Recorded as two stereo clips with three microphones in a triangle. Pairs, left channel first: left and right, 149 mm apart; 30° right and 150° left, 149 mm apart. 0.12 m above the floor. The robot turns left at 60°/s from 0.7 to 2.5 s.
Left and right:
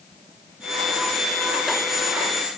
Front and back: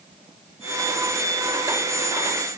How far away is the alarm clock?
I don't hear an alarm clock.